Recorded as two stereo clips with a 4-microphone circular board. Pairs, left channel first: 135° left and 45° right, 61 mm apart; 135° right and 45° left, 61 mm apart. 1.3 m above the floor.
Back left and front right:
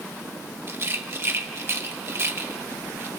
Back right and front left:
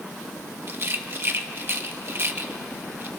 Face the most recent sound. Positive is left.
turn(degrees=0)